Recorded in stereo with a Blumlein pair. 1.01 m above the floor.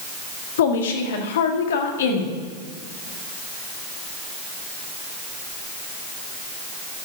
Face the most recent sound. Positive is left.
turn(degrees=60)